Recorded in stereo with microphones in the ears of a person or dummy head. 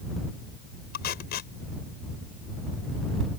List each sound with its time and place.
0.9 s tape being pulled: 45° left (ahead or behind)